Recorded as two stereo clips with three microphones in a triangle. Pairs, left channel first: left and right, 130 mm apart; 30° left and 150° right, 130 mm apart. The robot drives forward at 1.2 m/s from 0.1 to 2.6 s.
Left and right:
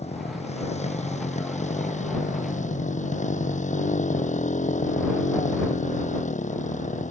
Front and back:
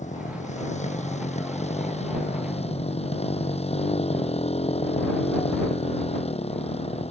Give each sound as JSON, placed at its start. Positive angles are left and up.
{"t": 0.0, "sound": "a motorcycle", "azimuth_deg": 55}